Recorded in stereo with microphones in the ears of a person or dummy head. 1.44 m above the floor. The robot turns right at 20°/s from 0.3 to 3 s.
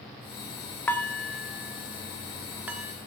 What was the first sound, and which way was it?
Dishes clattering, 10° left (ahead or behind).